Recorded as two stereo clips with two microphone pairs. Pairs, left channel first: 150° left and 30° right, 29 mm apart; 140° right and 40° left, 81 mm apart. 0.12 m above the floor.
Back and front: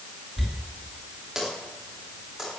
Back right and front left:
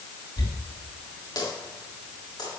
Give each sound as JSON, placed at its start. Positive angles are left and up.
{"t": 0.4, "sound": "a dropped coin", "azimuth_deg": -105, "distance_m": 9.0}